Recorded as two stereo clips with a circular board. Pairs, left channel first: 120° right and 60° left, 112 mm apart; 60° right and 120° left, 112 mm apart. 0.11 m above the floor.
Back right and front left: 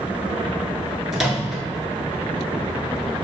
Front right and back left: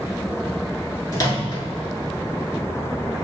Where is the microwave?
25° right, 1.1 m.